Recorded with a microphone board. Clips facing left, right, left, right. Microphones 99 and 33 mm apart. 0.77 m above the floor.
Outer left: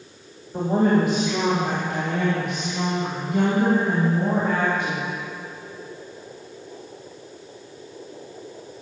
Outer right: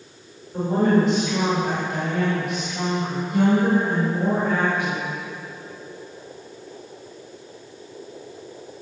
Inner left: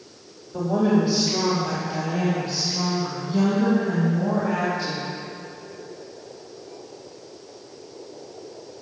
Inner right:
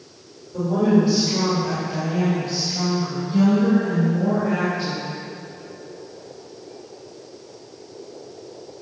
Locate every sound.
0.5 s a woman speaking: 15° left (ahead or behind), 2.5 m; by 5.0 s 15° right (ahead or behind), 4.5 m